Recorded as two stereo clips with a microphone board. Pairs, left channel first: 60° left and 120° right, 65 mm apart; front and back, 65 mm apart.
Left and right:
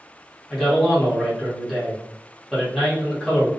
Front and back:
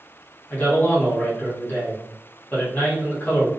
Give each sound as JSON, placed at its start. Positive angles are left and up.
{"t": 0.5, "sound": "a man speaking", "azimuth_deg": -25, "distance_m": 1.1}